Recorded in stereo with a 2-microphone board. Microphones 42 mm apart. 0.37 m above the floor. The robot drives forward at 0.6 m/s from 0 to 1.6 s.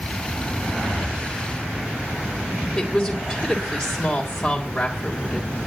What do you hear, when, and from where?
2.8 s a woman speaking: 10° left (ahead or behind), 1.8 m